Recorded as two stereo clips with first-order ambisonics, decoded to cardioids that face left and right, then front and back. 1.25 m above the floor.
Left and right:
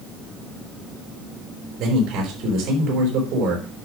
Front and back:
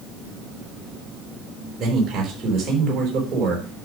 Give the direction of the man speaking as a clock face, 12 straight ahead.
5 o'clock.